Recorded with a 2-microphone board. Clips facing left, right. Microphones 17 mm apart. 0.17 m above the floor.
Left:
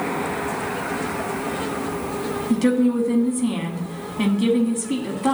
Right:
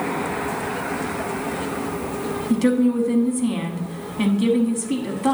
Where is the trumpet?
I don't hear a trumpet.